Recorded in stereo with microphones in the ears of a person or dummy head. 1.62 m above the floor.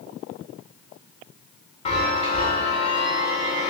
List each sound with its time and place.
1.9 s a chime: 30° left (ahead or behind), 0.8 m